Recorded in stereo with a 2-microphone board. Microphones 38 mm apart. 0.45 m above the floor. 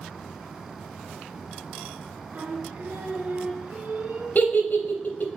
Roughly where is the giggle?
Left.